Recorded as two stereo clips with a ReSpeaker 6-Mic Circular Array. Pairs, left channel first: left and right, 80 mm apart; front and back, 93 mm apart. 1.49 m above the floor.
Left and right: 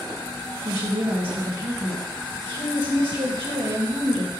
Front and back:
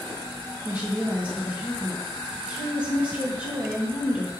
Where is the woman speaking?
105° right, 2.5 m.